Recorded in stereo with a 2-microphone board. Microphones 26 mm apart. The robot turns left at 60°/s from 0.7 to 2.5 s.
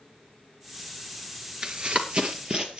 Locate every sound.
1.6 s running footsteps: 35° right (ahead or behind), 1.5 m; by 2.8 s 30° right (ahead or behind), 2.5 m